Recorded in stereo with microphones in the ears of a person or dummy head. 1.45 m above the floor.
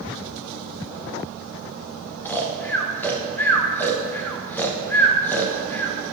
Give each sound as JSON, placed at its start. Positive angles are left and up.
{"t": 2.2, "sound": "snoring", "side_deg": 10, "distance_m": 0.5}